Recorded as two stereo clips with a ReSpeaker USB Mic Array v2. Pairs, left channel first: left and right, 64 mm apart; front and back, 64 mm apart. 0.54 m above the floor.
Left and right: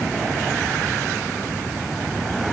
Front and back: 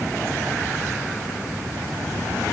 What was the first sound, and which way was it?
Only background noise.